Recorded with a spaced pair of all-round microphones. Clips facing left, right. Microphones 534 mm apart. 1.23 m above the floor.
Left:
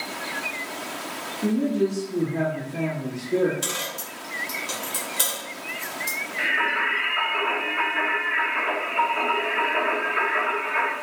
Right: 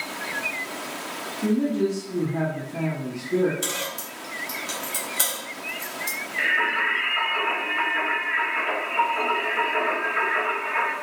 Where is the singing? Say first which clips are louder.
Even; 15° right (ahead or behind), 1.6 m.